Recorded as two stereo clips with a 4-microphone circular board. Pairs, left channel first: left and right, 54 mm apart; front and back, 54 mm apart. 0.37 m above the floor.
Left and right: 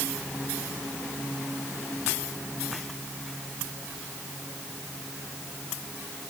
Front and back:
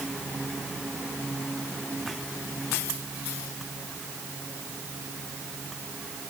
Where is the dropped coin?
I don't hear a dropped coin.